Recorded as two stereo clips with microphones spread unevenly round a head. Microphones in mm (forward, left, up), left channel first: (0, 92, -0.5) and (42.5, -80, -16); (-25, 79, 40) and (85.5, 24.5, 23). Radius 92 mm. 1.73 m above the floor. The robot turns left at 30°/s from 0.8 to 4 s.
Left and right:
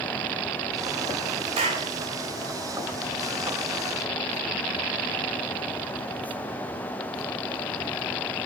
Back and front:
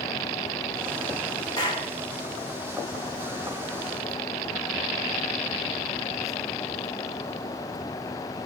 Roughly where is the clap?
Behind right.